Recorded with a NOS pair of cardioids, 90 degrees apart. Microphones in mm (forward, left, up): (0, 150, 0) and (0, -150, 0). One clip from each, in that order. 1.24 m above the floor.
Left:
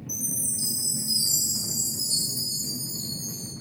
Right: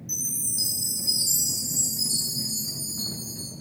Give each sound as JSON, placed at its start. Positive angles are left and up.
{"t": 0.1, "sound": "a chime", "azimuth_deg": -65, "distance_m": 2.0}